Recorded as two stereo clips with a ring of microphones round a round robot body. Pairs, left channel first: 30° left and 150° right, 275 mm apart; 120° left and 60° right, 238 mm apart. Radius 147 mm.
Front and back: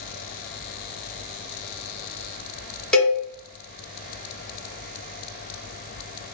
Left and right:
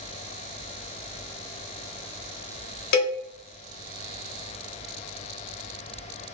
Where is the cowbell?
115° left, 0.7 m.